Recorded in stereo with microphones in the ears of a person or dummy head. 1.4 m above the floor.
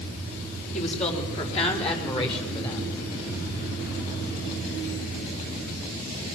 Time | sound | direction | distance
0.7 | a woman speaking | 40° left (ahead or behind) | 5.5 m